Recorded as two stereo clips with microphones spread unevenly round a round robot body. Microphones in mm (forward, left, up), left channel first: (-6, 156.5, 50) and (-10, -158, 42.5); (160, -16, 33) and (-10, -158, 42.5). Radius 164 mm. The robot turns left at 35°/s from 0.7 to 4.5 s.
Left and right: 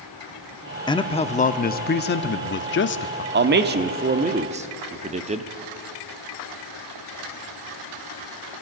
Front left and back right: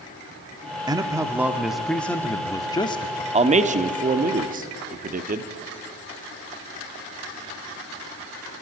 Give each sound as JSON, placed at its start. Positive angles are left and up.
{"t": 0.9, "sound": "a man speaking", "azimuth_deg": 160, "distance_m": 0.7}
{"t": 3.3, "sound": "a man speaking", "azimuth_deg": -100, "distance_m": 1.0}